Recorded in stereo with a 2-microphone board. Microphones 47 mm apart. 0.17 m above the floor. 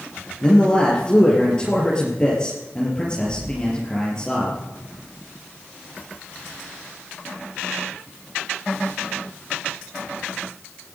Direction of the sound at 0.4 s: 20° left (ahead or behind).